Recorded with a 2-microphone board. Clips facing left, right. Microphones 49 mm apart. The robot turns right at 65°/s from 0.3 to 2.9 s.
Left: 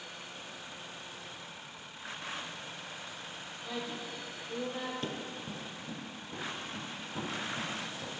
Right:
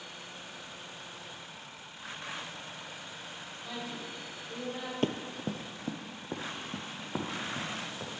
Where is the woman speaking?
5° left (ahead or behind), 2.5 m.